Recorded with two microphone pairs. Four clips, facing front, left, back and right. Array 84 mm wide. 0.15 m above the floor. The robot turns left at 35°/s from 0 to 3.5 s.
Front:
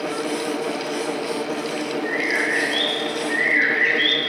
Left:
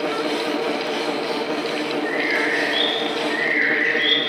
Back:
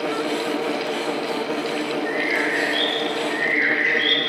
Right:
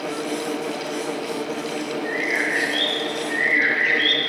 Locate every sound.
2.0 s a bird: 65° left, 2 m; by 4.2 s 10° left, 2 m